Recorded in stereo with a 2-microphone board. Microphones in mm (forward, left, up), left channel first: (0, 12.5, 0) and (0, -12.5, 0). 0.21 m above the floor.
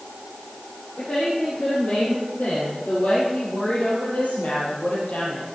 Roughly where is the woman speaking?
Left.